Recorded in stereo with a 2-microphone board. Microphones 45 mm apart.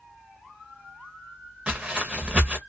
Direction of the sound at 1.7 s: 20° right (ahead or behind).